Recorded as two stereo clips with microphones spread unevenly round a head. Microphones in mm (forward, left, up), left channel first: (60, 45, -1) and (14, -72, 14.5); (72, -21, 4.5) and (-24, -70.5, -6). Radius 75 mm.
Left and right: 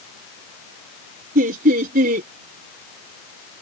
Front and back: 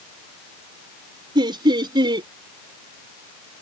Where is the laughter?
105° right.